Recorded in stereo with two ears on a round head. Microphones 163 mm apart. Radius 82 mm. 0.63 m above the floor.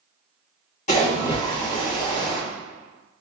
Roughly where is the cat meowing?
No cat meowing in this recording.